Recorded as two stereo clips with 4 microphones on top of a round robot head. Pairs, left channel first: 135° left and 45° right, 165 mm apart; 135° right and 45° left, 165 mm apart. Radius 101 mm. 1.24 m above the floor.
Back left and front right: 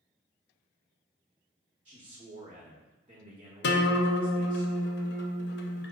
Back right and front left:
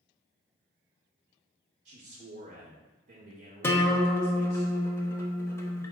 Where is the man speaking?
10° left, 0.9 m.